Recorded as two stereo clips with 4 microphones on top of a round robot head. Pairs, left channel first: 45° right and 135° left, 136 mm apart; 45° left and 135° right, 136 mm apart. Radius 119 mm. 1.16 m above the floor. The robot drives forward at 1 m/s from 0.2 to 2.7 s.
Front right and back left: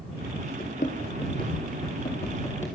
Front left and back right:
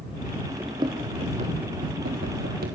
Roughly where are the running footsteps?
Right.